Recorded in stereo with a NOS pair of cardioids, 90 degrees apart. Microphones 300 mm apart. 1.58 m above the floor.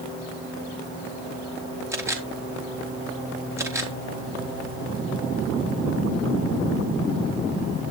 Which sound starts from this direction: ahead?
A camera shutter, at 1.9 s.